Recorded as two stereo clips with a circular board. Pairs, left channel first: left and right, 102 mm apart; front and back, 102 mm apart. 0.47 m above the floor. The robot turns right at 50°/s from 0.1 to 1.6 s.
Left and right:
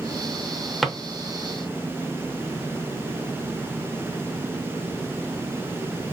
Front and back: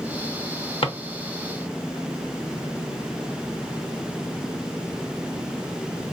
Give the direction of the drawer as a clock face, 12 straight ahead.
12 o'clock.